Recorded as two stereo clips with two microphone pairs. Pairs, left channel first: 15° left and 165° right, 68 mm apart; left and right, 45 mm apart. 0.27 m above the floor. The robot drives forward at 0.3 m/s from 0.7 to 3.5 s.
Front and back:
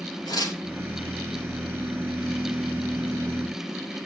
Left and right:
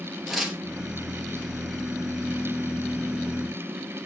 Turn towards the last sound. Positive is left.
turn(degrees=-5)